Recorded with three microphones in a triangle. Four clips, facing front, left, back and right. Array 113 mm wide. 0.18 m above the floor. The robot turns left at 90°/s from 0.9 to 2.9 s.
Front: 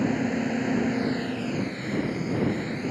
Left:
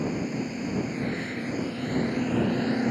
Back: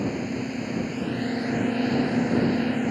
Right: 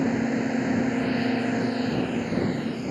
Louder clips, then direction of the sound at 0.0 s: Right 5 dB, front 3 dB; 60° right.